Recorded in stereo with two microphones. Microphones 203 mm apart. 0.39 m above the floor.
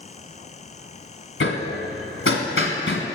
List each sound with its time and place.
1.4 s hammering: 80° left, 1.1 m